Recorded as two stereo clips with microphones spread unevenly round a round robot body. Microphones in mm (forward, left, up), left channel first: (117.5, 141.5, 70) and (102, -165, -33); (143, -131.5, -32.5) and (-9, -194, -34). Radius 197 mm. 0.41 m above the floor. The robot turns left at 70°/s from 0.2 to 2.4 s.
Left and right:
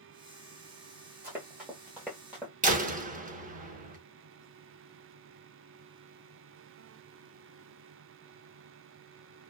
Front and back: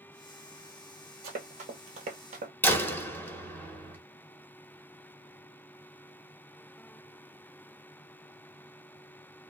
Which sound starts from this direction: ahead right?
A door slam, at 2.6 s.